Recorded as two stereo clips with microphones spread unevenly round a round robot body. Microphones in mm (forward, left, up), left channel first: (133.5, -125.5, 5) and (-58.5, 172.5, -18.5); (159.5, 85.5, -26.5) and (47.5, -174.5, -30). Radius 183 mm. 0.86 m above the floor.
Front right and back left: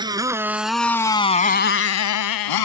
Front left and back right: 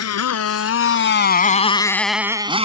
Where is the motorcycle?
45° left; by 2.6 s 45° right.